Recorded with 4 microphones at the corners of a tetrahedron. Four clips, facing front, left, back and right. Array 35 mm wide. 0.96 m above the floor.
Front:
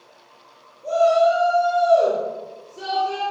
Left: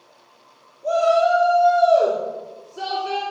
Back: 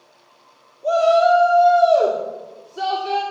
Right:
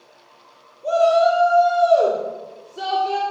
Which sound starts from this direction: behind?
A shout, at 0.8 s.